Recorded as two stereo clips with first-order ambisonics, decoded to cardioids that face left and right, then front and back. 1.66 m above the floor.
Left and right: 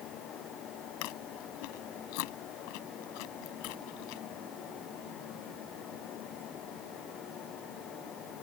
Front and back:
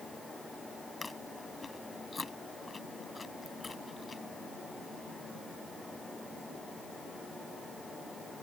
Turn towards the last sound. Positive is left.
turn(degrees=75)